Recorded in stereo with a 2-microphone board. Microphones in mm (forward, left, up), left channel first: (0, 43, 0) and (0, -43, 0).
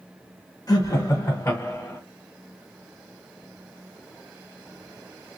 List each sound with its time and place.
0.7 s laughter: 40° left (ahead or behind), 1.6 m; by 2.0 s 20° left (ahead or behind), 1.6 m